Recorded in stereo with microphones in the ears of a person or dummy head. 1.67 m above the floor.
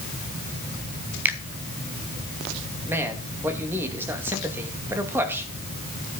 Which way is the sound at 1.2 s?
10° right (ahead or behind).